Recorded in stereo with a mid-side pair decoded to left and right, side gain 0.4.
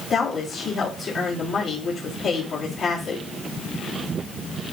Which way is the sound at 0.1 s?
60° left.